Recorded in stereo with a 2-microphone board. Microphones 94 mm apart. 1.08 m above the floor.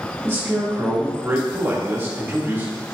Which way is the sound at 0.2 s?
25° right (ahead or behind).